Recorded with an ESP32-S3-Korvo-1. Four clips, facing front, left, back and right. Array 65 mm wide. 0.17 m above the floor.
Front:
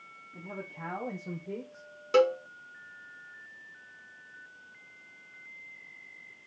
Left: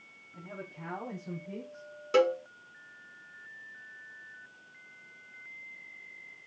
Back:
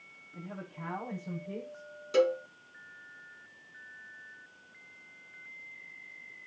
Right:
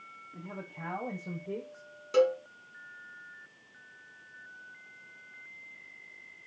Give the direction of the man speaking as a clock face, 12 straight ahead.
2 o'clock.